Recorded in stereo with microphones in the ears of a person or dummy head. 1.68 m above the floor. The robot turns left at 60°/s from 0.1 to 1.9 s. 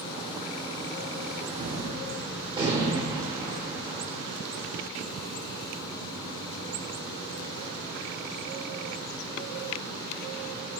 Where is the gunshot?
45° right (ahead or behind), 1.6 m; by 4.3 s 25° right (ahead or behind), 1.6 m.